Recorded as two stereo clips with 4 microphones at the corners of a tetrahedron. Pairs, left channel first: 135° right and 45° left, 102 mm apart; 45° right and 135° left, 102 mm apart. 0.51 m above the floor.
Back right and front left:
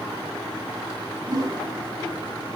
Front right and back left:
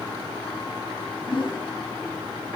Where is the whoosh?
10° right, 2.5 m.